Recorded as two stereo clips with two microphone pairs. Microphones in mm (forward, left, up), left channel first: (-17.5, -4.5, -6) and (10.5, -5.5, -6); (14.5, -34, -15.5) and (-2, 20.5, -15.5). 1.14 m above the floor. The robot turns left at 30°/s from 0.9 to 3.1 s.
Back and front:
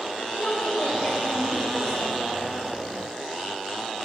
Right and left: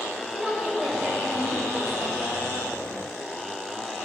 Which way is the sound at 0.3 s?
Straight behind.